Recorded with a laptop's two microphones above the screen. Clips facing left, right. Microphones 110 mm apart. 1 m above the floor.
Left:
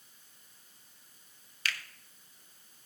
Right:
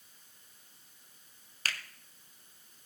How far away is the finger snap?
About 0.8 m.